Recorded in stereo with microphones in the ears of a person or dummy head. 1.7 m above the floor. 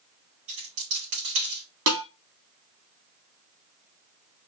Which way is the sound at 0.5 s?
40° right (ahead or behind).